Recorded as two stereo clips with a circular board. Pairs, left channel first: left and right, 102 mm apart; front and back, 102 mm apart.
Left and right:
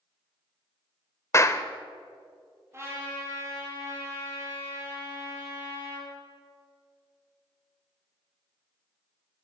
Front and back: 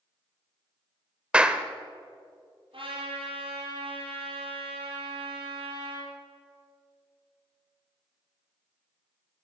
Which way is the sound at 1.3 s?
110° left.